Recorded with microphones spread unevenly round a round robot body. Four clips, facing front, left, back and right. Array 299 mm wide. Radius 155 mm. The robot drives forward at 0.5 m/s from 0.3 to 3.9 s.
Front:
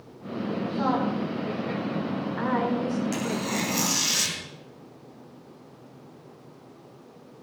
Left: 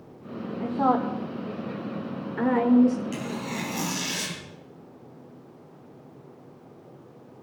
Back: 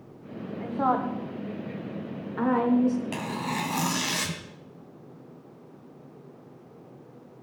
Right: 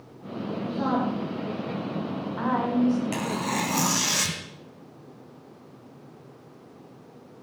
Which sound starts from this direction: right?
Tearing paper, at 3.1 s.